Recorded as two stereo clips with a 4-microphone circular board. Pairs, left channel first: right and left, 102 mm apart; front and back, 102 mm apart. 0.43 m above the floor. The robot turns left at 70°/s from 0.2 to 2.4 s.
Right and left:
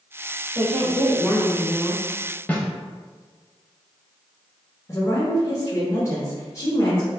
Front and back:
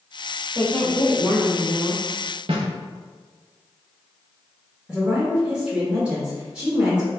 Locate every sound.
0.6 s a woman speaking: 65° left, 1.4 m; by 2.0 s 40° right, 1.4 m
2.5 s a snare drum: 165° right, 0.7 m
4.9 s a woman speaking: 110° right, 0.9 m